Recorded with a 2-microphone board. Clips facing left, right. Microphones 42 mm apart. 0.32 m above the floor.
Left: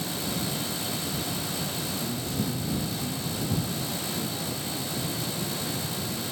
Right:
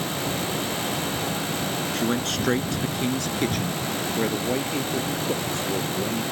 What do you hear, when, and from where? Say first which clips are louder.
1.9 s a man speaking: right 7 dB; 75° right (ahead or behind); by 6.2 s 70° right (ahead or behind)